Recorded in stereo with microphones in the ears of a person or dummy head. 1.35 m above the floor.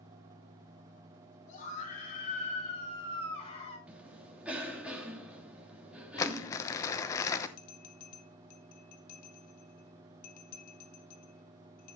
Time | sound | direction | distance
1.5 | a scream | 45° left (ahead or behind) | 9 m
3.9 | a cough | 5° right (ahead or behind) | 3 m
6.2 | crumpling | 20° left (ahead or behind) | 0.9 m
7.6 | a bell | 50° left (ahead or behind) | 1.4 m